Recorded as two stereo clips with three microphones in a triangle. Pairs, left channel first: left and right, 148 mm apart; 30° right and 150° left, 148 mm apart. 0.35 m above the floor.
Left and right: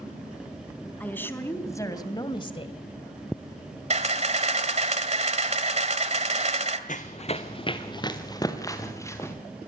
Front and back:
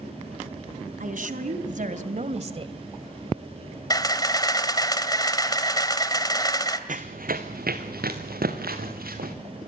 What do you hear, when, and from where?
1.0 s a woman speaking: 170° left, 3 m; by 2.7 s 115° left, 1.7 m
3.9 s a camera shutter: 85° right, 1.9 m
6.9 s running footsteps: 120° left, 1.7 m; by 9.3 s 165° left, 5 m